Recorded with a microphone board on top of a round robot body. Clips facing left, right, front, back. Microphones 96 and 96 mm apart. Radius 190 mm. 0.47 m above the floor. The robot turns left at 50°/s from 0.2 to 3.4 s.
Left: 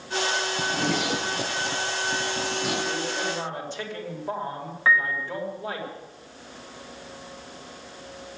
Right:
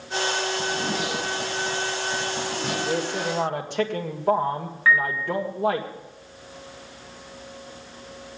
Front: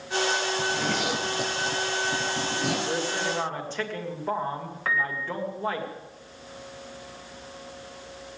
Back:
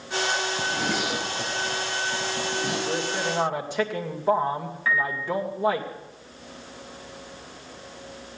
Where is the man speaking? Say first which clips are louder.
Right 3 dB, back 1 dB; 75° right, 2.5 m; by 5.8 s 105° right, 2.5 m.